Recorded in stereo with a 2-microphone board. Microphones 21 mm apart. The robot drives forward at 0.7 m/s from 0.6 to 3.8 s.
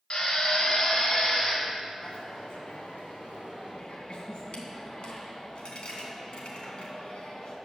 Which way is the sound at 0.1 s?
50° left (ahead or behind).